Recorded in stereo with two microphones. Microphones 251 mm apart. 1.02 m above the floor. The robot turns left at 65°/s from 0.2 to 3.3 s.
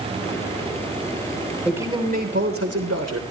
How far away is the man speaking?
About 3 m.